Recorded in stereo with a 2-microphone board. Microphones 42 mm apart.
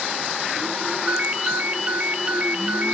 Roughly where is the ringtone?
Right.